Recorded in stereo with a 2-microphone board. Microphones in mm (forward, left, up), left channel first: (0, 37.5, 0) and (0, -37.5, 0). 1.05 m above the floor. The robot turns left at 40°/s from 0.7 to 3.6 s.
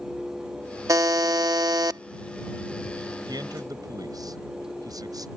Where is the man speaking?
75° right (ahead or behind); by 5.3 s 60° right (ahead or behind).